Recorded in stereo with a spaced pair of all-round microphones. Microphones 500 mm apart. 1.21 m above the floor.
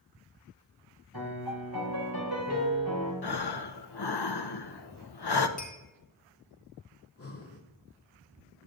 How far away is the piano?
About 3 m.